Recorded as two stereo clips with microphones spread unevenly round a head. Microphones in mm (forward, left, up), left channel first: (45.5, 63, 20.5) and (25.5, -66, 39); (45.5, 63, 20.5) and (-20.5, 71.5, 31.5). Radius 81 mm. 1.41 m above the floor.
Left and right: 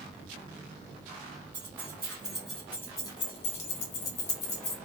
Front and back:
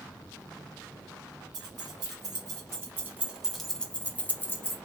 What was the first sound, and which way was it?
Keys jangling, 170° right.